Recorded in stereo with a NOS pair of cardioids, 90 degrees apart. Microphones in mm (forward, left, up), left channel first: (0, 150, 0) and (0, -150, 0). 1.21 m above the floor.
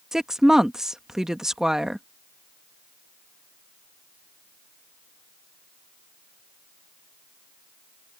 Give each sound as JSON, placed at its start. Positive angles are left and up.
{"t": 0.1, "sound": "a woman speaking", "azimuth_deg": 0}